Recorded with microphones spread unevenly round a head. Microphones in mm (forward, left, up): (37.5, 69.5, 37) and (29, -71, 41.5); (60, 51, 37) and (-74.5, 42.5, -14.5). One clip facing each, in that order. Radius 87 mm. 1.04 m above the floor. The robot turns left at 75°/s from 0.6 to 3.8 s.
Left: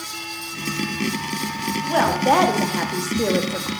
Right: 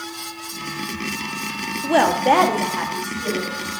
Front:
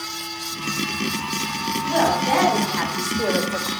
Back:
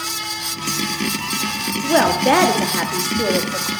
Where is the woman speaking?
140° right, 1.7 m; by 3.7 s 80° left, 1.7 m.